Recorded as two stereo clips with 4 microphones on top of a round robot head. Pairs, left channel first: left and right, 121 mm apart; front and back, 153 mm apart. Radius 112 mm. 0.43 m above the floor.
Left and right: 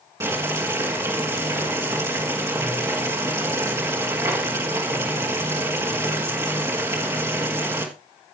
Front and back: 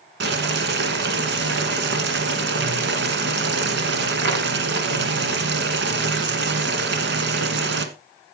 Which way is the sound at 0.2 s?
165° right.